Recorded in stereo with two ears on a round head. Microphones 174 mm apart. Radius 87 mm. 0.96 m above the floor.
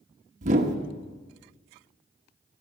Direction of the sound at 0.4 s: 40° right (ahead or behind).